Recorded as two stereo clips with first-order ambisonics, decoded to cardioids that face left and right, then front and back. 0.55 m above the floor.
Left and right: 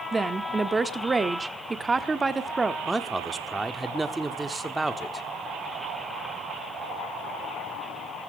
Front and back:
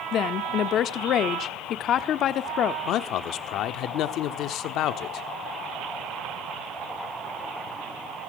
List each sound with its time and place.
0.1 s a woman speaking: 20° right, 1.0 m
2.9 s a man speaking: 10° right, 1.1 m